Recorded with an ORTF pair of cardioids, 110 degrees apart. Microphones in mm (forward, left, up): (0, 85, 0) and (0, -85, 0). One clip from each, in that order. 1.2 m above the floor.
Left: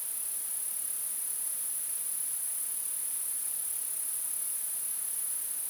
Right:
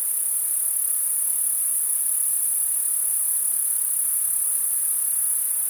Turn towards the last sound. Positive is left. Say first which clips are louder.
# right 10 dB
turn(degrees=-60)